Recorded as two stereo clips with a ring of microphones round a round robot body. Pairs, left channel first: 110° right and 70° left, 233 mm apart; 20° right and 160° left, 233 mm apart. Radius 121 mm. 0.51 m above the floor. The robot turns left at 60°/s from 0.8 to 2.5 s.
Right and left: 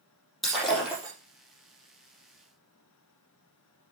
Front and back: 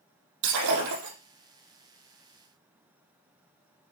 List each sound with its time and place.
0.4 s breaking glass: 155° left, 5.5 m; by 1.1 s 135° left, 5.5 m